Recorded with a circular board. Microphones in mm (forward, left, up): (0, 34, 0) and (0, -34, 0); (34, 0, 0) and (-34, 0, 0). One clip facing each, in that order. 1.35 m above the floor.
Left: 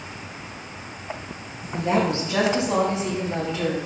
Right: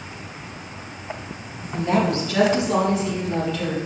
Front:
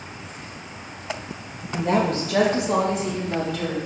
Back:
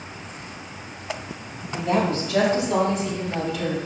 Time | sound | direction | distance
1.7 | a woman speaking | 25° left | 2 m